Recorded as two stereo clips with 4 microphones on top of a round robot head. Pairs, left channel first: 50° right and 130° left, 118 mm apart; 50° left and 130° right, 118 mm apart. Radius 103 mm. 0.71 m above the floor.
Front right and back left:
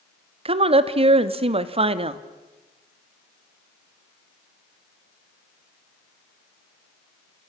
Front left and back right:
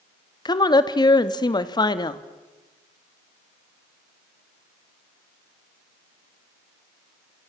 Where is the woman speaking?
100° left, 1.5 m.